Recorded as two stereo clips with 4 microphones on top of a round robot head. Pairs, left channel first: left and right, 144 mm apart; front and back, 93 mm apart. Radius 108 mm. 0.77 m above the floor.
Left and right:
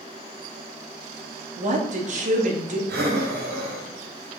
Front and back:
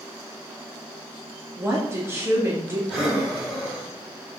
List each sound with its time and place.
1.6 s a woman speaking: 115° right, 1.9 m
2.9 s breathing: 95° right, 2.5 m